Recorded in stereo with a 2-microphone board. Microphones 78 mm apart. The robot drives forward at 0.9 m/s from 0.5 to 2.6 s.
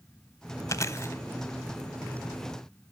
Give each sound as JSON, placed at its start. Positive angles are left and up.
{"t": 0.7, "sound": "chewing", "side_deg": 45, "distance_m": 0.7}